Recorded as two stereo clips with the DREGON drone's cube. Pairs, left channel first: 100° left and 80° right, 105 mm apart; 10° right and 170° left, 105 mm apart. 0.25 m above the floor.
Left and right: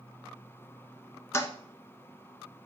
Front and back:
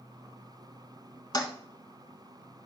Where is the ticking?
No ticking in this recording.